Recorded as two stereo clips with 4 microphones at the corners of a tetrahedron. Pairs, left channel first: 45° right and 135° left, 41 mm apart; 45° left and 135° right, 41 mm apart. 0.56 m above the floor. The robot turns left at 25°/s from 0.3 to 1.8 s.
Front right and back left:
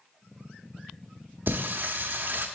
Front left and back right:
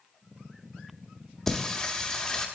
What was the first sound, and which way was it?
Singing, 125° left.